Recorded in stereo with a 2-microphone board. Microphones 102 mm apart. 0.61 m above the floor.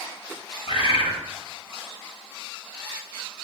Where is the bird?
75° left (ahead or behind), 1.2 m.